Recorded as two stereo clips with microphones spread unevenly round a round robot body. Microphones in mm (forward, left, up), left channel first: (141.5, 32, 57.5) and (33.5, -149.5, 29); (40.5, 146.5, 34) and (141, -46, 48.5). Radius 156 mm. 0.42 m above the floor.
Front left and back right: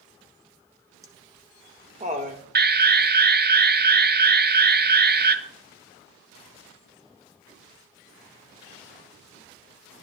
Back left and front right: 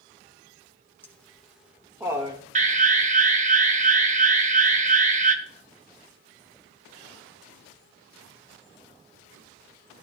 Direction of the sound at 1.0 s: 170° right.